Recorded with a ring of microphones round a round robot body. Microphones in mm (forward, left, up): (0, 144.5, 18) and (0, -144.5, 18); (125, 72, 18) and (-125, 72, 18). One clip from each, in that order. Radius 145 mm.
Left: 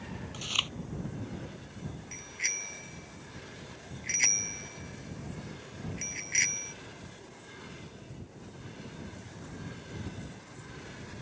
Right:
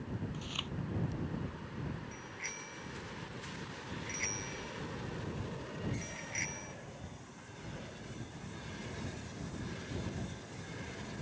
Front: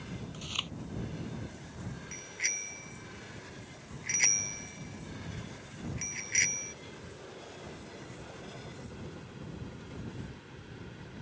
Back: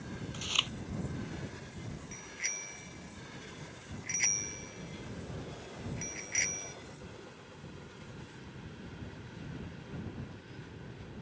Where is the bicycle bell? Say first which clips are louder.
Left 13 dB, front 4 dB; 60° left.